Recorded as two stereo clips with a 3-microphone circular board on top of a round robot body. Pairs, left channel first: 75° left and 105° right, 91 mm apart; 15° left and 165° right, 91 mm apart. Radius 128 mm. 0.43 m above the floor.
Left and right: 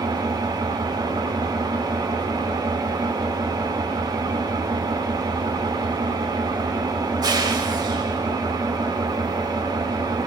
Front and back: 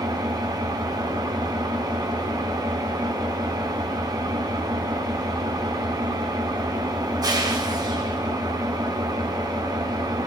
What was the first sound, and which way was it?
An engine running, 135° right.